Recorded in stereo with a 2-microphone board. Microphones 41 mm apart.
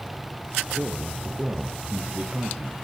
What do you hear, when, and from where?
0.7 s a man speaking: 25° right (ahead or behind), 5 m